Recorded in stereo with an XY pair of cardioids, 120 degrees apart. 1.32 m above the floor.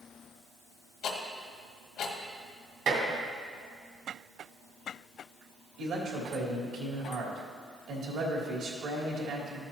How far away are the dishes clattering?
About 2.5 m.